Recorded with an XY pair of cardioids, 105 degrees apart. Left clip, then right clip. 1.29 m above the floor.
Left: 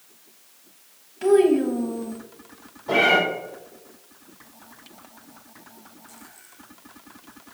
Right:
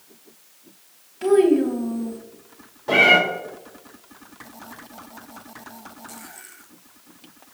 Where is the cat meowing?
55° right, 2.5 m.